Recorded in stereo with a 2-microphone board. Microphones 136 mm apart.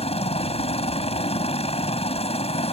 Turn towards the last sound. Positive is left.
turn(degrees=45)  # may be behind; listen again after turning